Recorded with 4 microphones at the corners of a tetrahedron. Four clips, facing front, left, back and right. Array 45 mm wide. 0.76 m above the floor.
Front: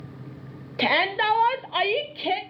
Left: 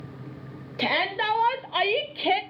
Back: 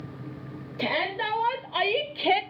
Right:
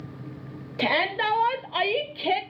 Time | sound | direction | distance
0.8 | a shout | 10° right | 1.1 m